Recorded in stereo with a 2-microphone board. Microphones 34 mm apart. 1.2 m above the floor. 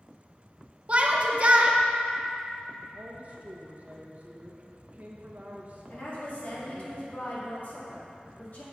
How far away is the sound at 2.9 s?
About 1.2 m.